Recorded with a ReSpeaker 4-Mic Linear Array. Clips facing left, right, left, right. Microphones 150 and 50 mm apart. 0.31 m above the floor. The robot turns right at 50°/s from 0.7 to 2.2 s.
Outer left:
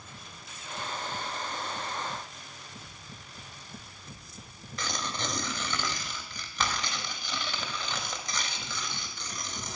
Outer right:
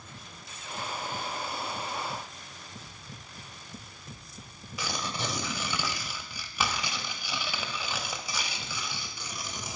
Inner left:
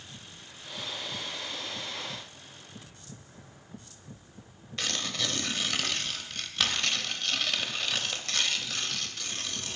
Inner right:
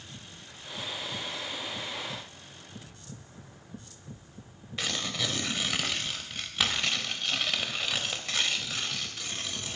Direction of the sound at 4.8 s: 10° right (ahead or behind).